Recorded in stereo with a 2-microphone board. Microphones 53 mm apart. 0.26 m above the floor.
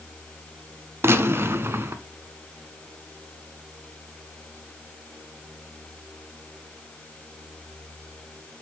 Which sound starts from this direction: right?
A gunshot, at 1.0 s.